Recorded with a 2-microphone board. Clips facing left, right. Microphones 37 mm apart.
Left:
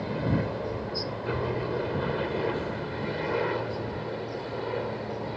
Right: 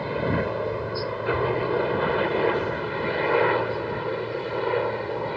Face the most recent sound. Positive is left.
turn(degrees=-35)  # may be behind; listen again after turning